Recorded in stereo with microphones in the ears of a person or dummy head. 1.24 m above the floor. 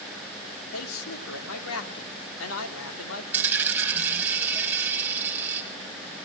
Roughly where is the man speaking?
Left.